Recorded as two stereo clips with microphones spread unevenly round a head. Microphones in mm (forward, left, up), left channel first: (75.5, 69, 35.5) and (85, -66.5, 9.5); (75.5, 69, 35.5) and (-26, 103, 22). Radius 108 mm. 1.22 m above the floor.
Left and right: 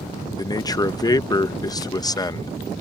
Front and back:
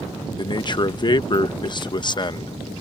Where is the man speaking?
30° left.